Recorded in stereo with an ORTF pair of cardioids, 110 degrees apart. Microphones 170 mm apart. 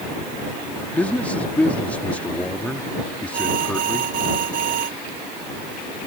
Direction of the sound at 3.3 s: 55° right.